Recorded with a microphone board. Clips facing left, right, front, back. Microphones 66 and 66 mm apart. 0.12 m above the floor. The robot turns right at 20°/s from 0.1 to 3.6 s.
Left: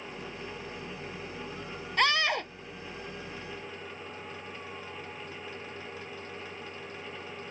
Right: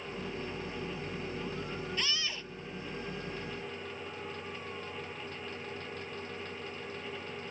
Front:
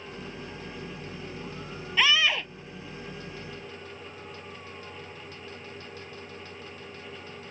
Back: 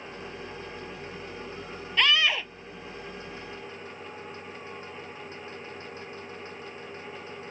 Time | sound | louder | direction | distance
2.0 | a scream | left 16 dB, even | 85° left | ?